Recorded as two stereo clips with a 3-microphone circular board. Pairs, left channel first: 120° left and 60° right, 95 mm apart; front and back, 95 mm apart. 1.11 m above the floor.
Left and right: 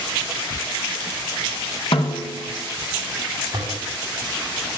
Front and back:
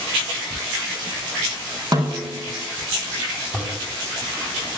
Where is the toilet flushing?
110° right, 8.5 m.